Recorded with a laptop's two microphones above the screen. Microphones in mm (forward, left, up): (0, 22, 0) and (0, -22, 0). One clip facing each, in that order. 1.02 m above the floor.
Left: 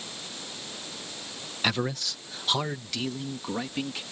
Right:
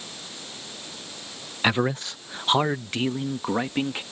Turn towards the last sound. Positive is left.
turn(degrees=-35)  # may be behind; listen again after turning